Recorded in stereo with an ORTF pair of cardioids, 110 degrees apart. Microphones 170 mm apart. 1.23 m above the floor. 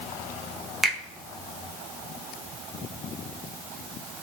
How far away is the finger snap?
About 0.6 m.